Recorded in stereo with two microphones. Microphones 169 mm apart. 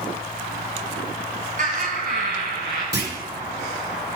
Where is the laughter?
50° right (ahead or behind), 1.8 m; by 2.8 s 65° right (ahead or behind), 2.5 m.